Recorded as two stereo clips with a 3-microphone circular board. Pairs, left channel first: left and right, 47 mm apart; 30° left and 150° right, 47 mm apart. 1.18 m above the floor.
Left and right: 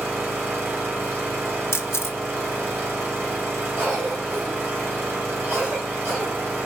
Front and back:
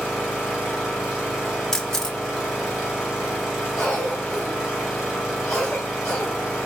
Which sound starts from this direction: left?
A camera shutter, at 1.7 s.